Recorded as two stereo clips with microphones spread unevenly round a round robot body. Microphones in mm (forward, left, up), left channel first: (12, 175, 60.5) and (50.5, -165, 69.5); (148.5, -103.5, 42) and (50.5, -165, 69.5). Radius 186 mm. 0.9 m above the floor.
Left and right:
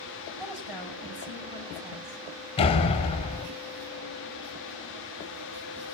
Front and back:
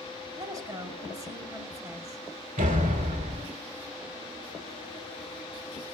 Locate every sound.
0.4 s a woman speaking: 85° right, 6.5 m
2.6 s a door slam: 170° left, 3 m